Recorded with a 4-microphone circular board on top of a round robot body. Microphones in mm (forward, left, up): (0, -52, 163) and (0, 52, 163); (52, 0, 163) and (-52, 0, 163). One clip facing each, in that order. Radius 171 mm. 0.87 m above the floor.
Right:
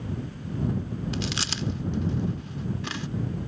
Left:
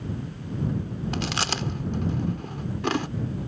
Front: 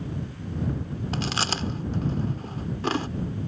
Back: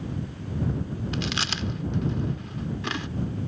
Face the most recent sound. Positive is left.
turn(degrees=50)